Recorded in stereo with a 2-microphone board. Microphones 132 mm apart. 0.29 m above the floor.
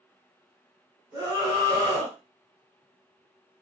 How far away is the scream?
About 1.4 m.